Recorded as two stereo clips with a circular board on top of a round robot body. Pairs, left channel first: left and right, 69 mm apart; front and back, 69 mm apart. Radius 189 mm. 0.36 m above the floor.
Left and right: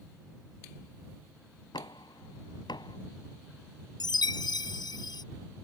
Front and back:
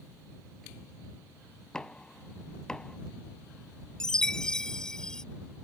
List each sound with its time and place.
1.7 s knocking: 80° left
4.0 s a chime: 80° left